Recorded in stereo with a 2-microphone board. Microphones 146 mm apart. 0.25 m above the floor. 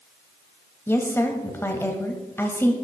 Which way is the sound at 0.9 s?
15° left (ahead or behind).